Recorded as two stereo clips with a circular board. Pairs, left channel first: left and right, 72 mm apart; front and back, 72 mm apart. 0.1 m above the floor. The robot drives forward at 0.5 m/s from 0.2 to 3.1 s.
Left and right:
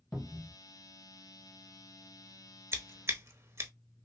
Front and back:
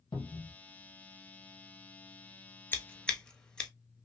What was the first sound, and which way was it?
A cupboard door, 10° left.